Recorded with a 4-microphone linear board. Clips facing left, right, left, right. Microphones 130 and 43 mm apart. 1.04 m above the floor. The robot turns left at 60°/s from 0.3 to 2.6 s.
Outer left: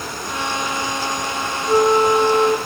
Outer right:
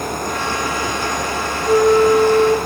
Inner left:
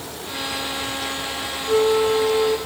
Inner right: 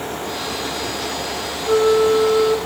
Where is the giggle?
No giggle in this recording.